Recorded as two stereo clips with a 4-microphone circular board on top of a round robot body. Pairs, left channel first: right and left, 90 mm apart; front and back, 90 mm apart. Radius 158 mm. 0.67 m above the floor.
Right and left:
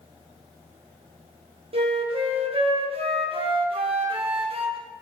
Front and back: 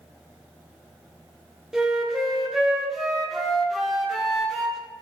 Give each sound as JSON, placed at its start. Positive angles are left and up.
{"t": 1.7, "sound": "a flute", "azimuth_deg": 95, "distance_m": 1.1}